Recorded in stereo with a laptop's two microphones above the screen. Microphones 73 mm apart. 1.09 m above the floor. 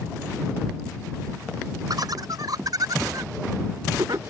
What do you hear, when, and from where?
1.9 s laughter: 60° right (ahead or behind)